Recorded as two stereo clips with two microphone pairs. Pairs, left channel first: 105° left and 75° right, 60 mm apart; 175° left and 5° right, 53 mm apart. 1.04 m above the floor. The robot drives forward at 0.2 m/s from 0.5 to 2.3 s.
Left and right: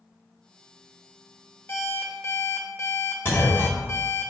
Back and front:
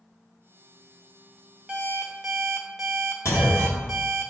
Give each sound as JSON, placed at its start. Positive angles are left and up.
{"t": 1.7, "sound": "an alarm clock", "azimuth_deg": 60, "distance_m": 0.7}
{"t": 3.2, "sound": "a clunk", "azimuth_deg": 160, "distance_m": 1.7}